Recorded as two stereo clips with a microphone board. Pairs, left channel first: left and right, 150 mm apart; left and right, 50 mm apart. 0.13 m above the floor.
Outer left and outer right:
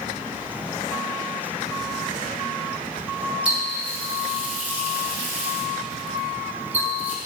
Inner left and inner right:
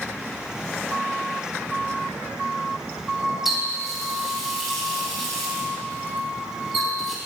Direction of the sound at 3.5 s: 10° right (ahead or behind).